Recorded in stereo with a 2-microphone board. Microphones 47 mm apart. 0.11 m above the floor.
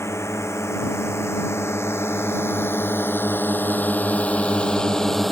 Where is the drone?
75° left (ahead or behind); by 5.3 s 5° left (ahead or behind).